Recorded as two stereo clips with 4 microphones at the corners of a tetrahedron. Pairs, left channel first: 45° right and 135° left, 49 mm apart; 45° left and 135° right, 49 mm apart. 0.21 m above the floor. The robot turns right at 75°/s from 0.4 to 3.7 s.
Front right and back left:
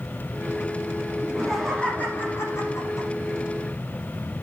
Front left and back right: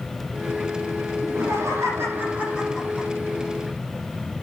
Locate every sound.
1.2 s laughter: 160° right, 8.5 m; by 3.1 s 20° right, 8.5 m